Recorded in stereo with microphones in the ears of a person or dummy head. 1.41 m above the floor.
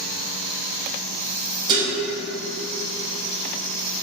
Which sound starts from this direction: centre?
Dishes clattering, at 1.7 s.